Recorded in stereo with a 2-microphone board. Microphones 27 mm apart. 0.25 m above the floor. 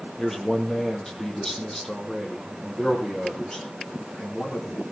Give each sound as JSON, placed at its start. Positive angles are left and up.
{"t": 0.2, "sound": "a man speaking", "side_deg": 15, "distance_m": 5.5}